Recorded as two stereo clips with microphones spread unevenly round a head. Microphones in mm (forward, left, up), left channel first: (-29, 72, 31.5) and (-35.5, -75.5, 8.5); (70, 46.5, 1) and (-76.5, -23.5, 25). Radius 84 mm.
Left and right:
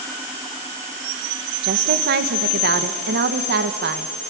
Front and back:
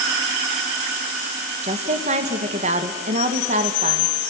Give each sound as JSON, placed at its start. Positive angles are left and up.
{"t": 1.6, "sound": "a woman speaking", "azimuth_deg": -100, "distance_m": 1.4}